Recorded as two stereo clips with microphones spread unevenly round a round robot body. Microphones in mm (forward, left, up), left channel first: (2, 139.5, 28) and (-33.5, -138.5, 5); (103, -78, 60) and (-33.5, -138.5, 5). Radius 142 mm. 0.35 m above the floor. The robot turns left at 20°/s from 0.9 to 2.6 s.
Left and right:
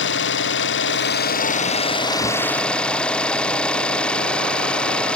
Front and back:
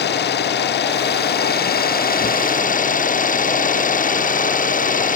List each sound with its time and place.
0.0 s an engine running: 30° left; by 5.2 s 5° right